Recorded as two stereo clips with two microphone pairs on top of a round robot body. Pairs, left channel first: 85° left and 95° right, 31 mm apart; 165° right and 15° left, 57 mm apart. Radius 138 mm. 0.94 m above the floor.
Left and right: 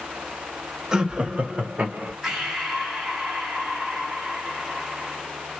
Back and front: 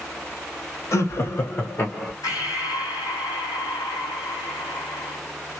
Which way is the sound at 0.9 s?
160° right.